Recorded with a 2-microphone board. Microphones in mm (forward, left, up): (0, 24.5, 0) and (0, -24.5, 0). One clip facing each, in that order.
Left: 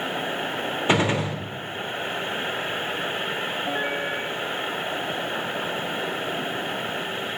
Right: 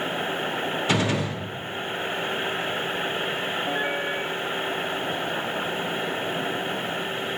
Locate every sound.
0.9 s a gunshot: 30° left (ahead or behind), 0.9 m